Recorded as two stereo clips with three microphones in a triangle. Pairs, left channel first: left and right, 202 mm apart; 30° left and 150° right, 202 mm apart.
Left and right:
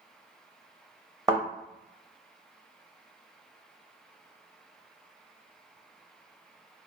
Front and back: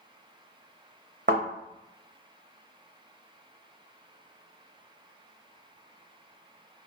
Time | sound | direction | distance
1.3 | a thud | 160° right | 1.5 m